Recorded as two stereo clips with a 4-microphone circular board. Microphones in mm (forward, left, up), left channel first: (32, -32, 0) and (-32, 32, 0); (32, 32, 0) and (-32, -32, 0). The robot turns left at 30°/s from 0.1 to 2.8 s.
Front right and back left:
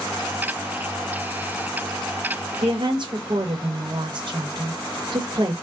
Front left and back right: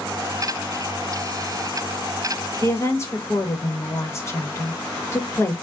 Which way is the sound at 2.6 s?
110° left.